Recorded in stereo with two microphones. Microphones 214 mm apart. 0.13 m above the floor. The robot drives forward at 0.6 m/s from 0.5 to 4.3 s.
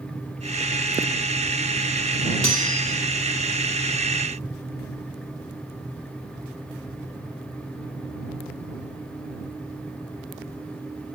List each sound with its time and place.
2.4 s cutlery clinking: 75° right (ahead or behind), 2.5 m